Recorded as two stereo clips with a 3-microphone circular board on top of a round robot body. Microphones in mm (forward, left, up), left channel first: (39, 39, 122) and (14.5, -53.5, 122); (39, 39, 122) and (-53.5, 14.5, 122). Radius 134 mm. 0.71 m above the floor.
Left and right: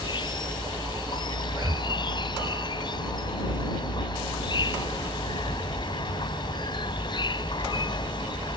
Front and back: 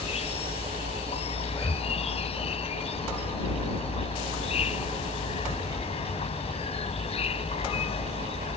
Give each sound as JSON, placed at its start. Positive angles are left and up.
{"t": 0.0, "sound": "an insect", "azimuth_deg": 30}
{"t": 1.5, "sound": "breathing", "azimuth_deg": -45}